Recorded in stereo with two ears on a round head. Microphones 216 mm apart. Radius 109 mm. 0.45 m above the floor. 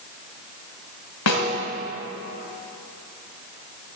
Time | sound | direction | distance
1.3 | a snare drum | 75° left (ahead or behind) | 1.9 m